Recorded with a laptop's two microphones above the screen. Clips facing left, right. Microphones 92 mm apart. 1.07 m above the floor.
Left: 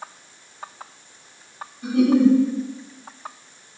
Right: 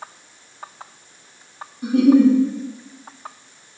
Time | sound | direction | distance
1.8 | a giggle | 70° right (ahead or behind) | 1.4 m